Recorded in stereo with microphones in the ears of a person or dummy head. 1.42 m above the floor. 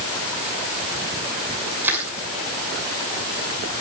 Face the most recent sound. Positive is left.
turn(degrees=-10)  # may be behind; listen again after turning